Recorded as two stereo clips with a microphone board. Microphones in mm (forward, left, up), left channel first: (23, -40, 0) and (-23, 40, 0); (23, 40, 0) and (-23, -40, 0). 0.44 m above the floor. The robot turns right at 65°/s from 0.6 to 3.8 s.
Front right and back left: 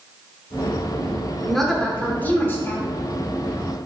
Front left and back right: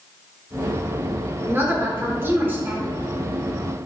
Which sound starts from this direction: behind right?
A woman speaking, at 1.4 s.